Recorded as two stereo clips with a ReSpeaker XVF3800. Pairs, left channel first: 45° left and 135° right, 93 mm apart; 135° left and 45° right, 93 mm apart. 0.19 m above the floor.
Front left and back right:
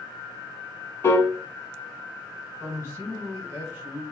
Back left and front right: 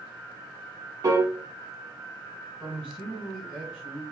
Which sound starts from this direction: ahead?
A piano, at 1.0 s.